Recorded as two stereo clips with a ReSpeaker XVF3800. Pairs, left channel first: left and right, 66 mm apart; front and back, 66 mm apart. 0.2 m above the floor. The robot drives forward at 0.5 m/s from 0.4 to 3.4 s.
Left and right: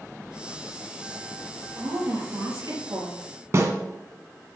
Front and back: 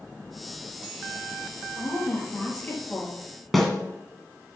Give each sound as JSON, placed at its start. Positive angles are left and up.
{"t": 1.8, "sound": "a woman speaking", "azimuth_deg": -55, "distance_m": 3.5}
{"t": 3.5, "sound": "a snare drum", "azimuth_deg": -90, "distance_m": 1.6}